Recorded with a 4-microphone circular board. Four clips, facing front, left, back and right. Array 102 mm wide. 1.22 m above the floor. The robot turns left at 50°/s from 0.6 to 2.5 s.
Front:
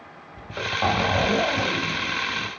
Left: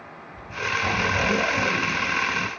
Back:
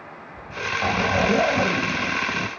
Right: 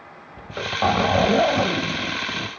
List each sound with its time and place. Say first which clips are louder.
0.4 s a zipper: right 4 dB, front 1 dB; 80° right, 1.8 m; by 2.5 s 175° right, 1.8 m